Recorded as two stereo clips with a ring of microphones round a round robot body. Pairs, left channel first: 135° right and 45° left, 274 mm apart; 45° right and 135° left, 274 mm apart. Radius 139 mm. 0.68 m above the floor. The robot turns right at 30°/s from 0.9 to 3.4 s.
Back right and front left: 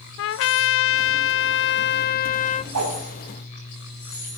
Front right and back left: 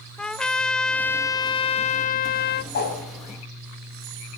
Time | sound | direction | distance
0.2 | a trumpet | 130° right | 0.5 m
2.7 | a whoosh | 10° left | 4 m